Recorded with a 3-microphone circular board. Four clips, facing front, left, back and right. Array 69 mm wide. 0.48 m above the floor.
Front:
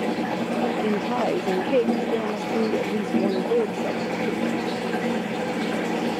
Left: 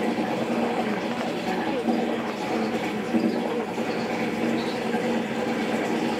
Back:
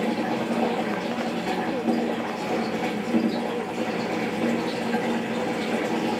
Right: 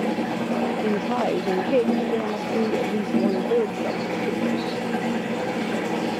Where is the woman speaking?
50° right.